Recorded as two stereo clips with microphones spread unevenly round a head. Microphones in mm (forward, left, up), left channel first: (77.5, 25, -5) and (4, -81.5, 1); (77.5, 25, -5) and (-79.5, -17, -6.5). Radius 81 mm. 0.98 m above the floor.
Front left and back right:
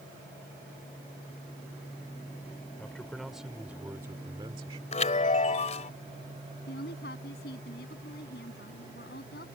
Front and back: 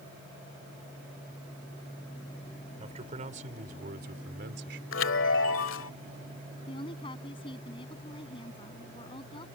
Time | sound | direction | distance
2.8 | a man speaking | 140° left | ?
4.9 | a chime | 20° left | ?
6.7 | a woman speaking | 75° left | ?